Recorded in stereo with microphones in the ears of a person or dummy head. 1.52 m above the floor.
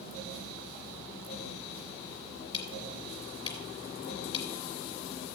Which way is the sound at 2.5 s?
35° left (ahead or behind).